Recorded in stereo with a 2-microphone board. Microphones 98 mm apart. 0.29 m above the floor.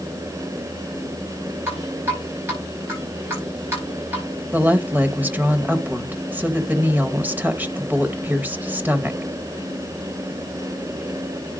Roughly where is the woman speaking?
Centre.